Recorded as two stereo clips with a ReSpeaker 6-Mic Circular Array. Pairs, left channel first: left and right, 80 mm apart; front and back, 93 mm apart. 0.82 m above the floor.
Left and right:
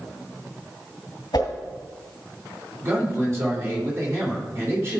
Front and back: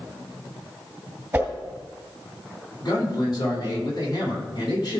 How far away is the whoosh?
About 2 m.